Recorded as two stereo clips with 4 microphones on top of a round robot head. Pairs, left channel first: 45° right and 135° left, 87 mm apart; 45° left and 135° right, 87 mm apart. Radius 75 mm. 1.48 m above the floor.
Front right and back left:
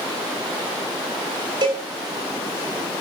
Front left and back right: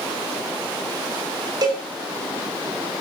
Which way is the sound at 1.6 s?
Straight behind.